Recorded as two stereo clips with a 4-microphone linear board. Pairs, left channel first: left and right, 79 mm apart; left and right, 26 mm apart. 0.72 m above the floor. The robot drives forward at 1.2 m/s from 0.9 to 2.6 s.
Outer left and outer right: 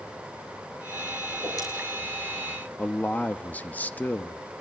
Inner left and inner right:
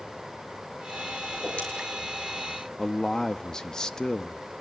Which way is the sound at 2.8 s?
20° left (ahead or behind).